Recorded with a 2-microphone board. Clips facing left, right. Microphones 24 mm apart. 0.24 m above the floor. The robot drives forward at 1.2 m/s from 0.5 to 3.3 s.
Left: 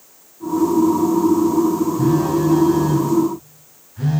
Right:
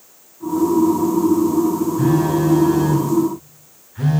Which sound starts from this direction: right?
A phone buzzing, at 2.0 s.